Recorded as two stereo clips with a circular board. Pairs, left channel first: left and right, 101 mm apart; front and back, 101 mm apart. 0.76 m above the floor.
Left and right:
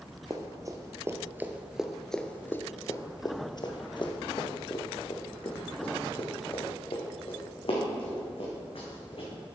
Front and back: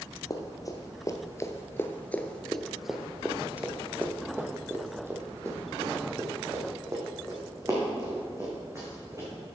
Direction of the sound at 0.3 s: 45° right.